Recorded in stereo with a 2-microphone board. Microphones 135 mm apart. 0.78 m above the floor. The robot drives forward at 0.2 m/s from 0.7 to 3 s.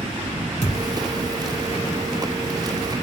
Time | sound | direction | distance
0.6 | a thud | 65° right (ahead or behind) | 1.5 m